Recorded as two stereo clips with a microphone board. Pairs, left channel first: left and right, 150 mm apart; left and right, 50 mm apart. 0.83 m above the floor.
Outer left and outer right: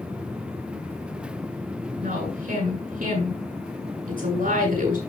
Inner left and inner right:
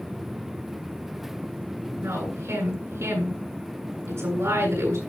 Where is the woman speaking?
80° right, 8.5 m.